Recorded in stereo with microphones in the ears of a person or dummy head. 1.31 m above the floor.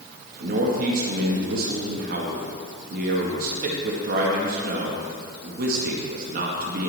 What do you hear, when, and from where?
0.4 s a man speaking: 60° right (ahead or behind), 1.4 m